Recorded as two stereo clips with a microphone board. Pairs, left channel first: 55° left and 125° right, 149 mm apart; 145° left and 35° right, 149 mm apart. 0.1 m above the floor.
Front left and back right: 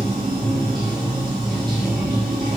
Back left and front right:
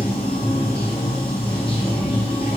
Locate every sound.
0.0 s running water: 175° right, 1.5 m